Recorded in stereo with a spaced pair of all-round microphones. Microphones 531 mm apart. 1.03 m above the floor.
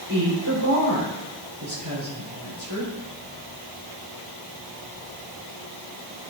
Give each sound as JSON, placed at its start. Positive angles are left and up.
{"t": 0.1, "sound": "a woman speaking", "side_deg": -45, "distance_m": 3.5}